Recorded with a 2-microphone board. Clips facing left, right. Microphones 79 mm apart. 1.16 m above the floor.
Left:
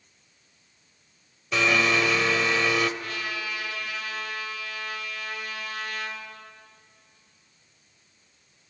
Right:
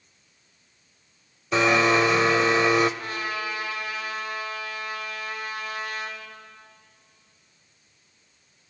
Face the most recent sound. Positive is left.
turn(degrees=-35)  # may be behind; listen again after turning